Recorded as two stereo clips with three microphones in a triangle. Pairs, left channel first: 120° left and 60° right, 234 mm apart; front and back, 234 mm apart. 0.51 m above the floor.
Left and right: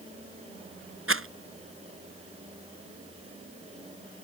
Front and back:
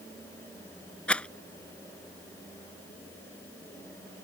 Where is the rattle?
85° right.